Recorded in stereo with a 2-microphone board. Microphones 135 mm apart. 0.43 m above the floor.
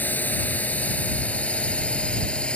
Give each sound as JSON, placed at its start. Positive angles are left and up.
{"t": 0.0, "sound": "a drone", "side_deg": 10}